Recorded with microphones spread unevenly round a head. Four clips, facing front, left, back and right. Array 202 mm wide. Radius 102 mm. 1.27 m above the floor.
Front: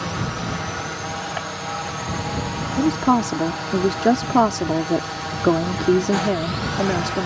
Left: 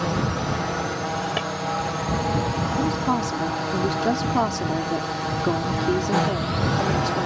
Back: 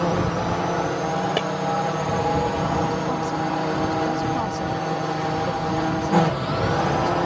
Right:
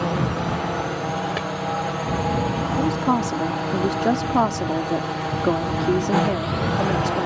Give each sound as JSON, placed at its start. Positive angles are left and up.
{"t": 0.0, "sound": "a drone", "azimuth_deg": -170}
{"t": 1.4, "sound": "breaking glass", "azimuth_deg": -175}
{"t": 2.8, "sound": "a woman speaking", "azimuth_deg": -5}